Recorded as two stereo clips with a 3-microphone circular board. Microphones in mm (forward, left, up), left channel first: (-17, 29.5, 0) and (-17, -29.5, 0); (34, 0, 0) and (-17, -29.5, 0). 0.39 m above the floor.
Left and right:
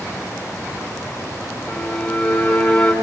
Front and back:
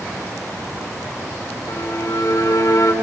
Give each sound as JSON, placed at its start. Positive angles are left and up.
{"t": 1.7, "sound": "a violin", "azimuth_deg": 10, "distance_m": 4.0}